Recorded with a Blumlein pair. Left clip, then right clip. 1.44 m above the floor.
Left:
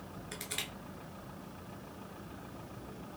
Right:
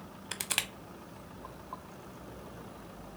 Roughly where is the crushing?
Ahead right.